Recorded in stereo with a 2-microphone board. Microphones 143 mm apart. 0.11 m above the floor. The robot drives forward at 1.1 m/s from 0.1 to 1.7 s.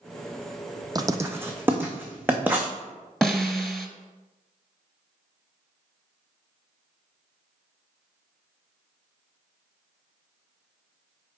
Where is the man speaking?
I don't hear a man speaking.